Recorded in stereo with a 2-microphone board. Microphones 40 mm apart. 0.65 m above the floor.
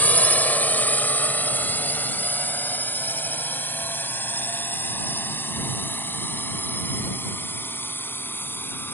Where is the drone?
45° left (ahead or behind); by 8.9 s 65° left (ahead or behind).